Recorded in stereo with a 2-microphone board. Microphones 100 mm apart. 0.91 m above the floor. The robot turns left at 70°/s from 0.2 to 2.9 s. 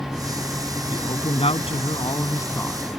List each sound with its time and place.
0.9 s a man speaking: 140° left; by 2.8 s 5° left